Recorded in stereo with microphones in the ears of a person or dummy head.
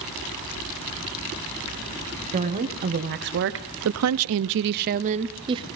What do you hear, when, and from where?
2.3 s a woman speaking: 40° right (ahead or behind), 1.4 m; by 5.7 s 20° right (ahead or behind), 1.0 m